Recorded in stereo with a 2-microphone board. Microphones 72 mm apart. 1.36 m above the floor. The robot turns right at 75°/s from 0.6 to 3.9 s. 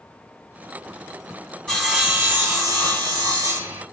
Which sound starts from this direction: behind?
Sawing, at 1.7 s.